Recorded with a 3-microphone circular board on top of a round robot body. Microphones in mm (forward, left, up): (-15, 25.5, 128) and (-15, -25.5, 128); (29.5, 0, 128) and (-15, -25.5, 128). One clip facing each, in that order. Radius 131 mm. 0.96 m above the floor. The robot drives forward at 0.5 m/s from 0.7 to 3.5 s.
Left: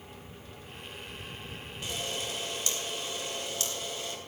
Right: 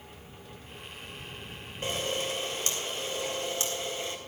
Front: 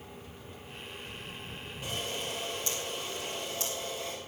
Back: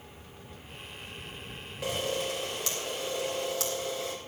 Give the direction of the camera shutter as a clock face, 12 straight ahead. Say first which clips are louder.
Right 5 dB, back 6 dB; 5 o'clock.